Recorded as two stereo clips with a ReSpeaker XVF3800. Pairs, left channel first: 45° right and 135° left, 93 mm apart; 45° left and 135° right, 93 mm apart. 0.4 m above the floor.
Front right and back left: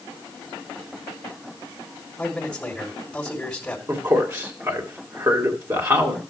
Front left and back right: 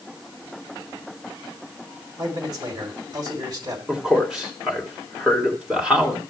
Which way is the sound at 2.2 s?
125° right.